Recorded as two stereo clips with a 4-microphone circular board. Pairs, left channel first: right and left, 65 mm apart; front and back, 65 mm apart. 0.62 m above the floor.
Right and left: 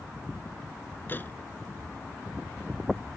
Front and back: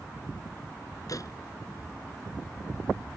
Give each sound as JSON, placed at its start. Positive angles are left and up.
{"t": 1.1, "sound": "a door slam", "azimuth_deg": -30}